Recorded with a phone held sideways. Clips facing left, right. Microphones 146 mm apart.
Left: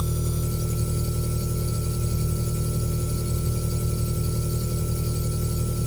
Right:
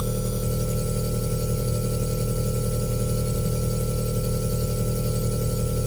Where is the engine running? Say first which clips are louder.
Right 2 dB; 70° right (ahead or behind), 0.7 m.